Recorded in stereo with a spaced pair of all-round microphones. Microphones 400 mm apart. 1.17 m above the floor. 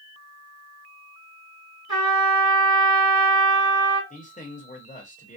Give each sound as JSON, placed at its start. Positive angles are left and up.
{"t": 1.9, "sound": "a trumpet", "side_deg": -60, "distance_m": 2.0}
{"t": 4.1, "sound": "a man speaking", "side_deg": 20, "distance_m": 1.1}